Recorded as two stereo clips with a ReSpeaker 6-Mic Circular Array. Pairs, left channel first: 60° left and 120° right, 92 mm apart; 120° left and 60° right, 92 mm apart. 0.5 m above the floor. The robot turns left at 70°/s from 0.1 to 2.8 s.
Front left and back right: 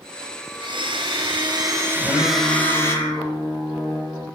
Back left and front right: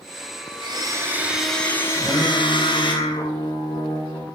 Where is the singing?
150° right, 9 m; by 4.3 s 150° left, 9 m.